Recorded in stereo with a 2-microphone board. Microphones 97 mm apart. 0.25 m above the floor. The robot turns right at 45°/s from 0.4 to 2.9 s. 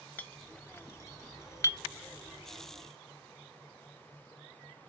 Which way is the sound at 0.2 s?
20° left (ahead or behind).